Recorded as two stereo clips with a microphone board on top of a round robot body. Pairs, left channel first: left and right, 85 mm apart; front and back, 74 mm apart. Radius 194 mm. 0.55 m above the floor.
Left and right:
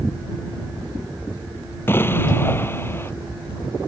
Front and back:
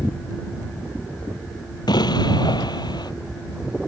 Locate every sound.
1.9 s an explosion: 25° left